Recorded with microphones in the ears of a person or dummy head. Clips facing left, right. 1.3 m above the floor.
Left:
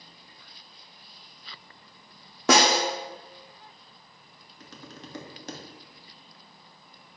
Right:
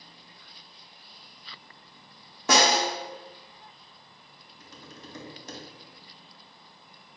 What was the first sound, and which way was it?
A snare drum, 50° left (ahead or behind).